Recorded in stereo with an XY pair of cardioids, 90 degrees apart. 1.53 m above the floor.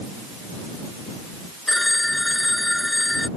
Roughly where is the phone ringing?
Ahead.